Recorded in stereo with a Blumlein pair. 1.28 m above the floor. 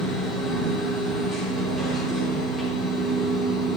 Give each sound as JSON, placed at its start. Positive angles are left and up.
{"t": 0.0, "sound": "a machine running", "azimuth_deg": 5, "distance_m": 3.5}